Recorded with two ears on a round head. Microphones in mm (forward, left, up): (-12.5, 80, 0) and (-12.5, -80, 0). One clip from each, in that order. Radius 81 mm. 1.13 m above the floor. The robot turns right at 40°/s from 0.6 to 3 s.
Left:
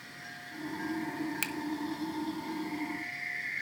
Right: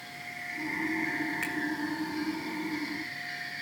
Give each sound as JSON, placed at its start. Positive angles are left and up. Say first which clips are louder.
{"t": 1.4, "sound": "a finger snap", "louder": "right 2 dB", "side_deg": 80, "distance_m": 1.3}